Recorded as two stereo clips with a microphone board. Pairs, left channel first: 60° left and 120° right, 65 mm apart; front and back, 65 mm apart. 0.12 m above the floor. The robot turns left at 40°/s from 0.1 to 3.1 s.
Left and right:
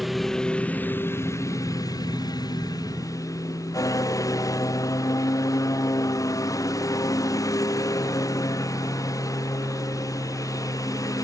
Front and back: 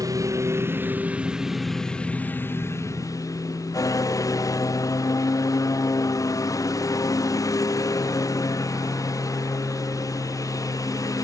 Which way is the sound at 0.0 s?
150° left.